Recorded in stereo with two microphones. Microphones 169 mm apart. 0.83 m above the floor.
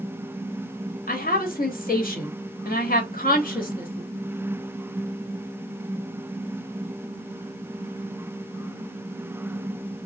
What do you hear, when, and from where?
1.1 s a woman speaking: 60° left (ahead or behind), 1.3 m